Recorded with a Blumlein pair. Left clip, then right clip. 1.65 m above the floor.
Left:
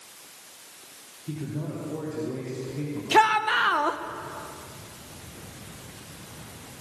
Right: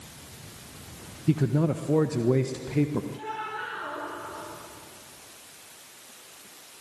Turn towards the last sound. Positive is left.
turn(degrees=45)